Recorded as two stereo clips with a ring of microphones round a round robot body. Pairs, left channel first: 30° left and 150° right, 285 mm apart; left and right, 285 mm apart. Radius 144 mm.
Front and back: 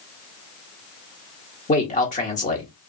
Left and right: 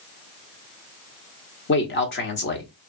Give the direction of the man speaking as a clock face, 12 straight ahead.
9 o'clock.